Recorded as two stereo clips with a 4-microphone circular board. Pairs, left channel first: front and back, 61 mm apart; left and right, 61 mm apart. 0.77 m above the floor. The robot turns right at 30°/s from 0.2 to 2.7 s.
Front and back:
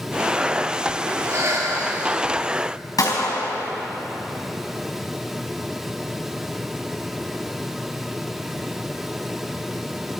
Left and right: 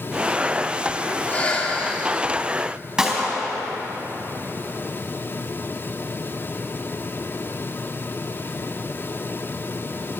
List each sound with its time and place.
1.2 s breathing: 150° left, 1.9 m; by 2.2 s straight behind, 1.9 m
3.0 s a gunshot: 10° right, 4 m